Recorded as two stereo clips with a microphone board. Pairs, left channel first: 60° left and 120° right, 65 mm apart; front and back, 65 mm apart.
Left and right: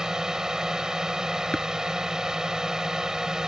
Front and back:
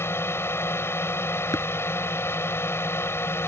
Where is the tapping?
10° right.